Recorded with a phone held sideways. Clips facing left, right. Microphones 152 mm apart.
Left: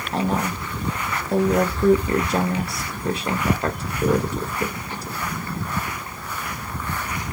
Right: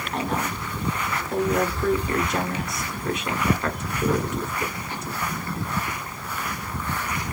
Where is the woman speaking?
35° left (ahead or behind), 0.9 m.